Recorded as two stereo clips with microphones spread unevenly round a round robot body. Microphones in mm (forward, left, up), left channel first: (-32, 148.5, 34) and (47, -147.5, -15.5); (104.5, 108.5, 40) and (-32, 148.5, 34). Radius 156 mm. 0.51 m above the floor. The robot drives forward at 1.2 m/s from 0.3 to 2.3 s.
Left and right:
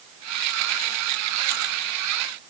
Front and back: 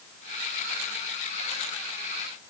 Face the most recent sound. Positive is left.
No sound to turn to.